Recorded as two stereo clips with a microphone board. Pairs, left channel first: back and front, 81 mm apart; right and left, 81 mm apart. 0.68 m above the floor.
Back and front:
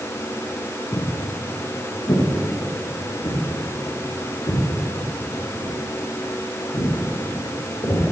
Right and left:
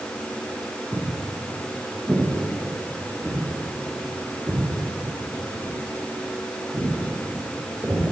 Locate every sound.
0.9 s footsteps: 155° left, 2.5 m; by 8.0 s 165° left, 10 m